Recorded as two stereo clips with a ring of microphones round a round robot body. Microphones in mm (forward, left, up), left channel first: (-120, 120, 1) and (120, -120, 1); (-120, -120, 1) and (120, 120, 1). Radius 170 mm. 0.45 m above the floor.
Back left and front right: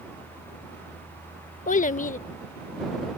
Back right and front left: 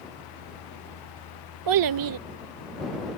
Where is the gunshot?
No gunshot in this recording.